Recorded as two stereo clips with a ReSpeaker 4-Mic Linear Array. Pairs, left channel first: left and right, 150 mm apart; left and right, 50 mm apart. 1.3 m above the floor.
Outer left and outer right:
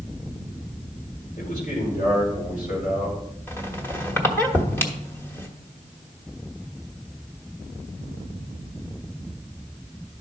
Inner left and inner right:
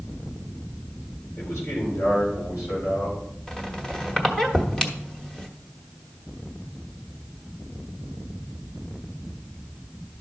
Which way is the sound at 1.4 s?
75° left (ahead or behind).